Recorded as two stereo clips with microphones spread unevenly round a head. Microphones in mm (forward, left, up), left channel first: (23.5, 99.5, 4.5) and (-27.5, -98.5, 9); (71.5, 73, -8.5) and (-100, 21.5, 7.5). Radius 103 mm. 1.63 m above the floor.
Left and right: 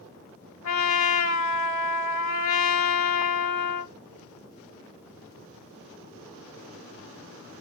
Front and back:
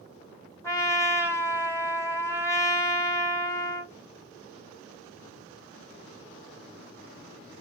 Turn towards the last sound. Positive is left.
turn(degrees=95)